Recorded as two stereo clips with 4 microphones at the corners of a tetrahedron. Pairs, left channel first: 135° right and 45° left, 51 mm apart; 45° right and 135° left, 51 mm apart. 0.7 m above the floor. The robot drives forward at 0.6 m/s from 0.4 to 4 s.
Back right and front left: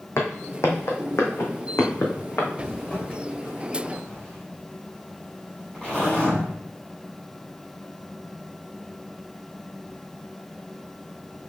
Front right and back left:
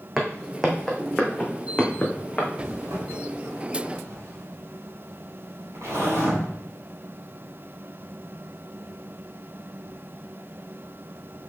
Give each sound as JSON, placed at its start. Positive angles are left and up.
{"t": 0.2, "sound": "footsteps", "azimuth_deg": -135, "distance_m": 1.7}
{"t": 2.6, "sound": "a zipper", "azimuth_deg": 165, "distance_m": 3.5}